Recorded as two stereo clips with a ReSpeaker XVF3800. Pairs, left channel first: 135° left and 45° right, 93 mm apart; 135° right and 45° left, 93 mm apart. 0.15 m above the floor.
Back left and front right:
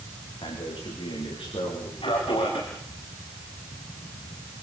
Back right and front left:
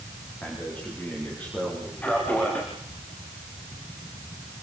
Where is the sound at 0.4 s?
150° left, 9 m.